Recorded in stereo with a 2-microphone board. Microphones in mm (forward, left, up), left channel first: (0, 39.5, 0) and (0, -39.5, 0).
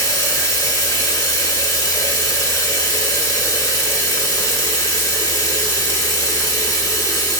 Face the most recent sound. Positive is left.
turn(degrees=50)  # may be behind; listen again after turning